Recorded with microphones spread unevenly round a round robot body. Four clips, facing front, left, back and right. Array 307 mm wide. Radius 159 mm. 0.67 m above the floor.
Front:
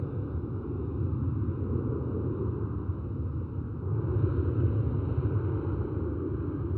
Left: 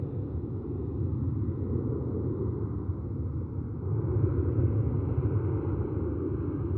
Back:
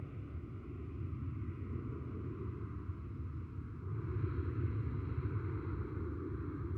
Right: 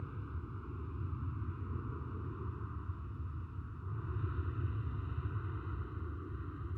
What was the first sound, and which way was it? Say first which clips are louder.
An aircraft: left 12 dB, front 13 dB; 50° left.